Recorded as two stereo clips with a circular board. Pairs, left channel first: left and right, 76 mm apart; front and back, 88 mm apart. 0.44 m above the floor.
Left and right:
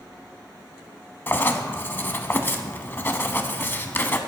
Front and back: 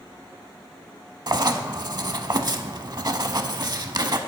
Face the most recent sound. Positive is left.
turn(degrees=145)